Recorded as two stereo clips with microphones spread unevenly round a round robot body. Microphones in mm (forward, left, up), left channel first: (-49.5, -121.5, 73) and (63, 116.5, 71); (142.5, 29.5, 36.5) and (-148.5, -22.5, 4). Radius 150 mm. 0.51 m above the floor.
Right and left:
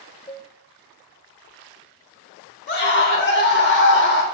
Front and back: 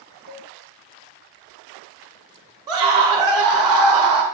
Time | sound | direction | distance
0.3 | a cowbell | 170° right | 0.7 m
2.7 | a scream | 115° right | 1.4 m